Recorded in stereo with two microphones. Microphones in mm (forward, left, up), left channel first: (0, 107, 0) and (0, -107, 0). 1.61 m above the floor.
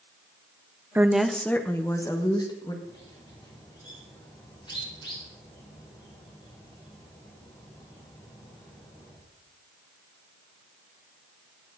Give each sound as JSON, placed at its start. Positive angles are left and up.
{"t": 0.9, "sound": "a woman speaking", "side_deg": -10, "distance_m": 0.7}
{"t": 2.8, "sound": "a bird", "side_deg": 20, "distance_m": 4.5}